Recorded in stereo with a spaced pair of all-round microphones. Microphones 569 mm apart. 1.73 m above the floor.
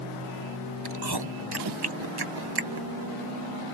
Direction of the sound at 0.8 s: 40° right (ahead or behind).